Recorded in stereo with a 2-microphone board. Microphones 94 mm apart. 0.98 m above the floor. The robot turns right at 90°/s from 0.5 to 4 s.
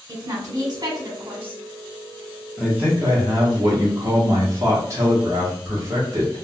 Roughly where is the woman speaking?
Right.